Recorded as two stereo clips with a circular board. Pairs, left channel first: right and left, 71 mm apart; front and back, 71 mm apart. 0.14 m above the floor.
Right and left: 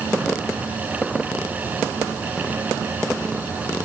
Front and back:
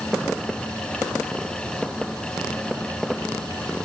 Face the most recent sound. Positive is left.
No sound to turn to.